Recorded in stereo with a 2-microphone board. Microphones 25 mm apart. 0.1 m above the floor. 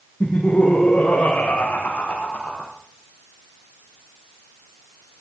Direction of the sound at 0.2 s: 45° left (ahead or behind).